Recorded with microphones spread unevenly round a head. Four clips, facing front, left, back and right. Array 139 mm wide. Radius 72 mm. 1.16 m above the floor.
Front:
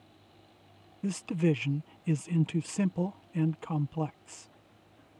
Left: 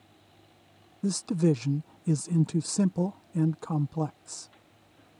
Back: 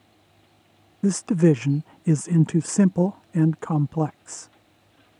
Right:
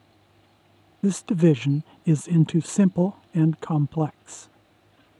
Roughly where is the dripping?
No dripping in this recording.